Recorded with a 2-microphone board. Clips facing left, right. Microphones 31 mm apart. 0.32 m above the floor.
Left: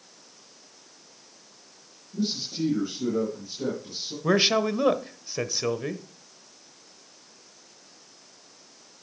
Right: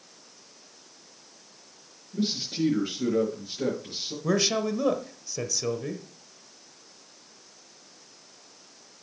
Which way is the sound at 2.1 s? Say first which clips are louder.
Right 1 dB; 40° right (ahead or behind).